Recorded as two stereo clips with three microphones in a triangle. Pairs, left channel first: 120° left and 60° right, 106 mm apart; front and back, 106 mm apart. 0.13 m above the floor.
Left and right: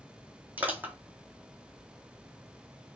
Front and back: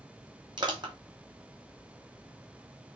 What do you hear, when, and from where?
0.6 s crushing: 135° right, 1.3 m